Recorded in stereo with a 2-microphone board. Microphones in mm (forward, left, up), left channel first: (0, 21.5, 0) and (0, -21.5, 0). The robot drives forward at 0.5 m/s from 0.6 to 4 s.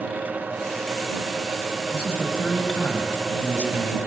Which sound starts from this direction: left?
A man speaking, at 1.9 s.